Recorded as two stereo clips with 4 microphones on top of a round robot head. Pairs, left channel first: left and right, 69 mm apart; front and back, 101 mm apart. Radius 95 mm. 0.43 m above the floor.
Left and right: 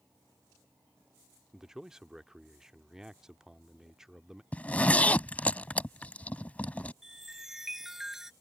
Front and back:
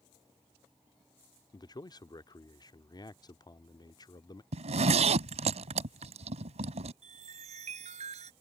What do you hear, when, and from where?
1.5 s a man speaking: 10° right
4.5 s a zipper: 160° left
7.0 s a chime: 175° right